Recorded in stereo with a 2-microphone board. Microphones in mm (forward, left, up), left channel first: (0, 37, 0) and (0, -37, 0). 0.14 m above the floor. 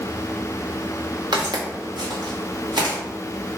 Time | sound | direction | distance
1.3 | footsteps | 85° right | 1.3 m